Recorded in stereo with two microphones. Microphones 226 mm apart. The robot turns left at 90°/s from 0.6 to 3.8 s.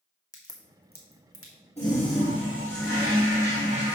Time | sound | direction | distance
0.3 | a crack | 15° left (ahead or behind) | 1.7 m
1.8 | a toilet flushing | 30° left | 4 m